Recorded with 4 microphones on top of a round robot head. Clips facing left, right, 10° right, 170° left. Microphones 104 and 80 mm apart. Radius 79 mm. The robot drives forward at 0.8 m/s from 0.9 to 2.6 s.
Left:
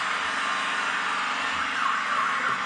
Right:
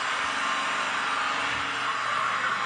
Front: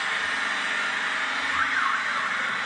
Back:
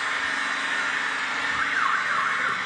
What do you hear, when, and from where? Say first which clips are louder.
0.0 s an engine running: even, back 1 dB; 150° right, 4 m; by 2.6 s 155° right, 5 m
1.5 s an alarm: left 3 dB, back 1 dB; 65° left, 0.6 m; by 2.5 s 145° left, 0.8 m